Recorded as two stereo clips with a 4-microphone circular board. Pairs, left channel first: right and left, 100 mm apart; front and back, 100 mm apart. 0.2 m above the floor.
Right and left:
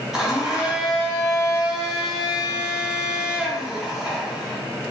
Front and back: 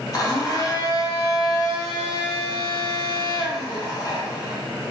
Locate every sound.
0.1 s a blender: 10° left, 0.7 m